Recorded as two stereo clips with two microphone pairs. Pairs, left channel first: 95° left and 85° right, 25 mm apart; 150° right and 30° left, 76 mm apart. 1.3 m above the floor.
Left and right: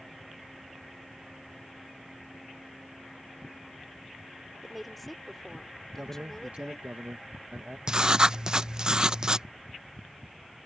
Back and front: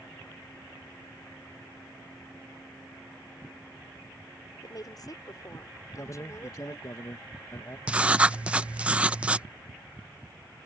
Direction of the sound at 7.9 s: 45° right.